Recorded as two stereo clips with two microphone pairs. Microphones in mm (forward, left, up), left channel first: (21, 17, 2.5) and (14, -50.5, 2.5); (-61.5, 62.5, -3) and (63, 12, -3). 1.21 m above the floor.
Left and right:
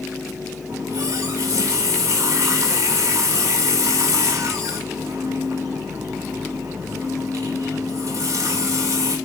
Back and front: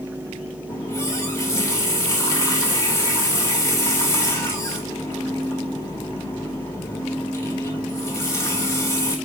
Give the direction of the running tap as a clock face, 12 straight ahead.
4 o'clock.